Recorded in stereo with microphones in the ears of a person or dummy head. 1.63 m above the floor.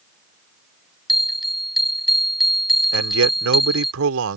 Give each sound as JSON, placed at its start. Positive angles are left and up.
{"t": 1.1, "sound": "a bell", "side_deg": 0}
{"t": 2.9, "sound": "a man speaking", "side_deg": -75}